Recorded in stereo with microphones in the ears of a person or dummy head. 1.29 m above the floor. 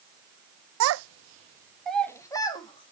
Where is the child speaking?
80° right, 0.9 m; by 2.9 s 20° left (ahead or behind), 2 m.